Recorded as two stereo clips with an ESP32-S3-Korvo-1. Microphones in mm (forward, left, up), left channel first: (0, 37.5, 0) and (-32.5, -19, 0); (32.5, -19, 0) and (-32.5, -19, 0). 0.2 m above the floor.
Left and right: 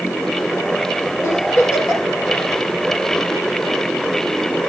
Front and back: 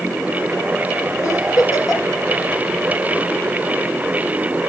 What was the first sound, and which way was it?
A giggle, 20° left.